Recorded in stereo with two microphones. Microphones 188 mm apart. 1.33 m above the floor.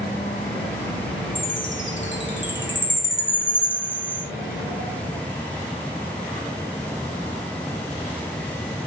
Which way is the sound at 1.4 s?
75° left (ahead or behind).